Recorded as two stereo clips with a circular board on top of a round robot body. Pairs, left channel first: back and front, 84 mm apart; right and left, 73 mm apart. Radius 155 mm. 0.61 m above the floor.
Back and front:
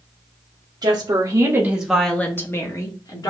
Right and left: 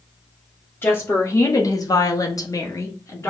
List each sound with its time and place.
0.8 s a woman speaking: 30° right, 1.2 m; by 3.3 s 145° right, 1.6 m